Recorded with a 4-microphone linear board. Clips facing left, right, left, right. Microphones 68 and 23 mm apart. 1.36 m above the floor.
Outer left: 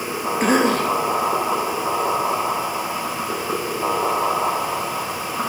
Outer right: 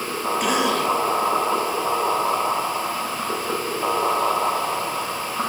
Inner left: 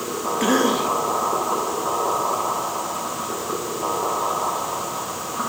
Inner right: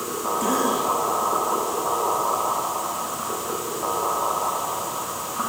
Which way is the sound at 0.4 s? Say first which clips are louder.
Outer left 4 dB, inner left 4 dB; 40° left (ahead or behind).